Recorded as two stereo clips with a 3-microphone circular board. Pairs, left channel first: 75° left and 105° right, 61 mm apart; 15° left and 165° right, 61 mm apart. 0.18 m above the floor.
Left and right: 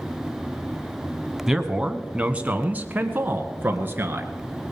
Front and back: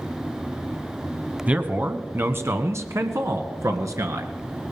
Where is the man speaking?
175° right, 1.0 m; by 4.3 s 155° right, 2 m.